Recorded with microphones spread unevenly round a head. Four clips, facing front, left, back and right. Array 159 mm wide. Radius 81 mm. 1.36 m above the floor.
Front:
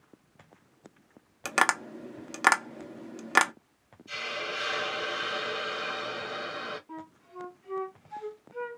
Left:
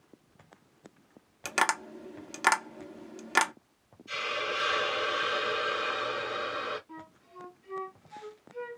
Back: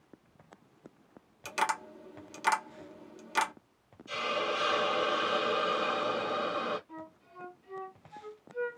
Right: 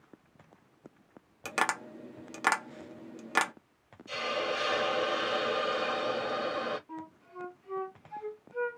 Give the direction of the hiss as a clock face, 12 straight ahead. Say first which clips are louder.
Right 1 dB, back 4 dB; 4 o'clock.